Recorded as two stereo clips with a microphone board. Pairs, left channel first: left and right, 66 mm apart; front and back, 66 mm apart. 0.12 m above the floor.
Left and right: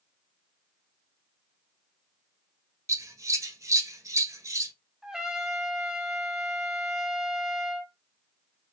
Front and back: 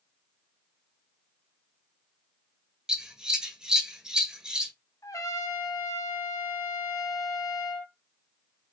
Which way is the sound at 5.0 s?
10° right.